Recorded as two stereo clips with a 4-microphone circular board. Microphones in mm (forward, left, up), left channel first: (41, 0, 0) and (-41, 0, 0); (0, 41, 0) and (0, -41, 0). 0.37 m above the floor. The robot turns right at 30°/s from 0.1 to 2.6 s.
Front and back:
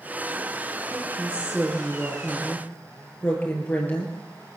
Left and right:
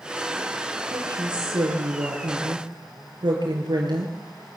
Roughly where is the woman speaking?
Behind right.